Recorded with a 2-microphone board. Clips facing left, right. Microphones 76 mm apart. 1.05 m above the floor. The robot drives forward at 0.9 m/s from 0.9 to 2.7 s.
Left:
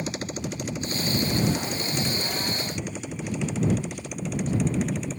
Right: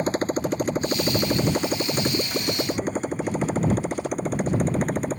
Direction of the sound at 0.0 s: 40° right (ahead or behind).